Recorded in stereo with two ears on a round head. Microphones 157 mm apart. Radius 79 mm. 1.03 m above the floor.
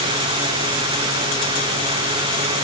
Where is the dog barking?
No dog barking in this recording.